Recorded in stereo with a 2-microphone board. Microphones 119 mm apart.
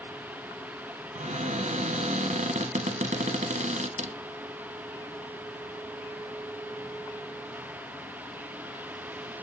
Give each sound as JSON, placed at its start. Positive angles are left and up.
{"t": 1.1, "sound": "a cupboard door", "side_deg": -75, "distance_m": 1.2}